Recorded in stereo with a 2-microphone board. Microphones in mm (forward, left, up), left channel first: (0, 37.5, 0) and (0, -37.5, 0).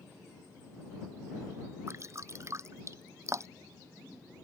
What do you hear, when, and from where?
1.9 s dripping: 40° right (ahead or behind)